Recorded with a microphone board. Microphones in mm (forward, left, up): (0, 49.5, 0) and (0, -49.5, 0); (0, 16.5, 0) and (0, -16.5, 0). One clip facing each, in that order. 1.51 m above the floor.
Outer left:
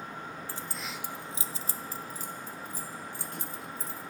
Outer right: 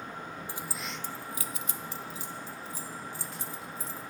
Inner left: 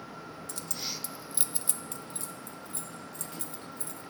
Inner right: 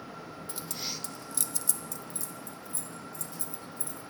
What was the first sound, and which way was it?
Keys jangling, 15° right (ahead or behind).